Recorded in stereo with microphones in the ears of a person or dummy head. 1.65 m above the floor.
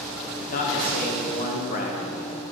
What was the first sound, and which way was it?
A man speaking, 55° left (ahead or behind).